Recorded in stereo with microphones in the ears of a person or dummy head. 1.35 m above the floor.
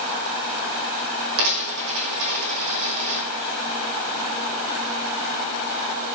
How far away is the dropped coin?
About 7 m.